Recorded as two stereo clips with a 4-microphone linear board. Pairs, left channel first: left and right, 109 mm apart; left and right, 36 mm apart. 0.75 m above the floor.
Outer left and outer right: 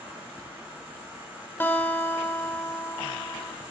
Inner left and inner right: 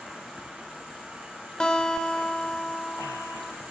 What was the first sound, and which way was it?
An insect, 20° right (ahead or behind).